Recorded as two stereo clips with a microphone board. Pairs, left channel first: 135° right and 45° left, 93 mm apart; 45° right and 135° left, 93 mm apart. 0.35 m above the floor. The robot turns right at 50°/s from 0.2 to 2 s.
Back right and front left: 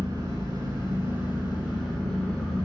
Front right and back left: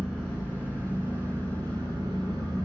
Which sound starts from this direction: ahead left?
An engine running, at 0.0 s.